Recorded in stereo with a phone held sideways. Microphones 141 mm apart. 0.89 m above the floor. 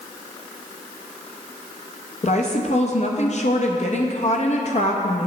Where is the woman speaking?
55° left (ahead or behind), 0.8 m.